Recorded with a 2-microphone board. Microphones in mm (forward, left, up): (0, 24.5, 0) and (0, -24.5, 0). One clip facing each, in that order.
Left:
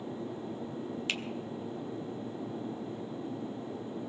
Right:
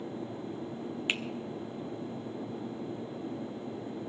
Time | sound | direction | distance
1.1 | a finger snap | 20° right (ahead or behind) | 1.0 m